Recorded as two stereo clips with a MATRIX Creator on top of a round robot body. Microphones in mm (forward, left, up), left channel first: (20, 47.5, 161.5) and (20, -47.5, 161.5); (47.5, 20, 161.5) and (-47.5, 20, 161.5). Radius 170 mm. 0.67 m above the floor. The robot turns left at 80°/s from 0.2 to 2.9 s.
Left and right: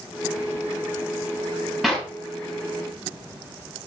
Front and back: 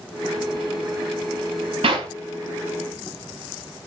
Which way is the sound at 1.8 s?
Straight behind.